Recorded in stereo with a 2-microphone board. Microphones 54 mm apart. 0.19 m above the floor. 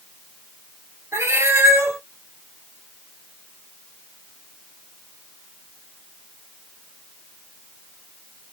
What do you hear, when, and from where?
1.1 s a cat meowing: 60° right (ahead or behind), 1.7 m